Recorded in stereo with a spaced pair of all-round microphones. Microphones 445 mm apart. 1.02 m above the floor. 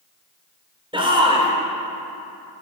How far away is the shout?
About 3.5 m.